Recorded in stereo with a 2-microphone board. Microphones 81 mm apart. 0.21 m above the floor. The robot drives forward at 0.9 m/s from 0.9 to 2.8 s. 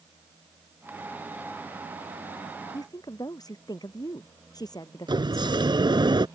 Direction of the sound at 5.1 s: 60° right (ahead or behind).